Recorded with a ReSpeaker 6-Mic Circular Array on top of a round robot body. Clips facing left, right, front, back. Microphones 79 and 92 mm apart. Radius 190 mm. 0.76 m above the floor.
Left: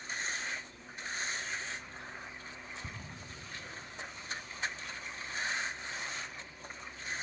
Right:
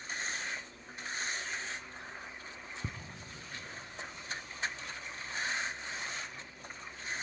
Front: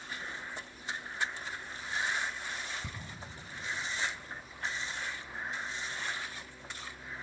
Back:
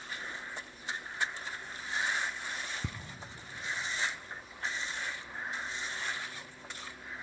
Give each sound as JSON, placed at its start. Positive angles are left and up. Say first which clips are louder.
{"t": 2.8, "sound": "ticking", "louder": "right 7 dB, back 5 dB", "azimuth_deg": -145, "distance_m": 0.5}